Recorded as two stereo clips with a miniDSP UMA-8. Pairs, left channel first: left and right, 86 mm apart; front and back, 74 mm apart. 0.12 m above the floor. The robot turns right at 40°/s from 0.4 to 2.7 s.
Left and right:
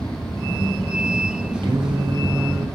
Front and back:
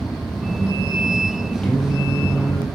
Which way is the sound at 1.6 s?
75° right.